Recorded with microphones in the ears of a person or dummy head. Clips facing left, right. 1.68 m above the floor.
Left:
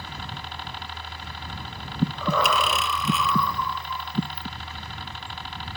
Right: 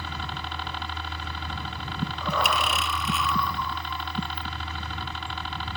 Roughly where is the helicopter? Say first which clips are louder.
Right 2 dB; right.